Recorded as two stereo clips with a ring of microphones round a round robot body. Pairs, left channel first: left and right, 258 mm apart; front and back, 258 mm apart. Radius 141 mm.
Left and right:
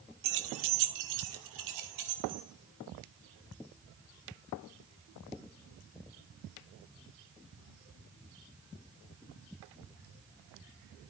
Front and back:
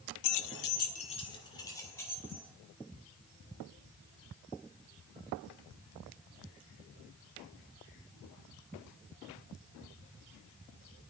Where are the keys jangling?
30° right, 0.6 m; by 2.5 s 85° right, 2 m.